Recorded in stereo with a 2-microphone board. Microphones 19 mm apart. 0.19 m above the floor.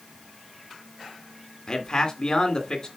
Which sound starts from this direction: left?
A man speaking, at 1.7 s.